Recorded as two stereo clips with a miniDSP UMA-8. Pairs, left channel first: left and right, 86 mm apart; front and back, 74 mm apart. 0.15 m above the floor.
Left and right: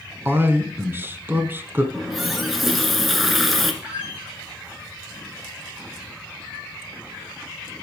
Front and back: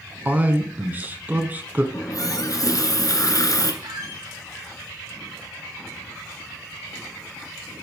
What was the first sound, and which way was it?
A man speaking, 130° right.